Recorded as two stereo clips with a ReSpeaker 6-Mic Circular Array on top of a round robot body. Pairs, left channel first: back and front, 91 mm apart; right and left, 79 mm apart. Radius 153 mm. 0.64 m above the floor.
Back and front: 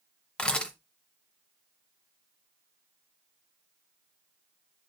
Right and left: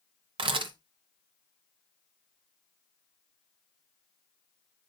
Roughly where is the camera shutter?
Left.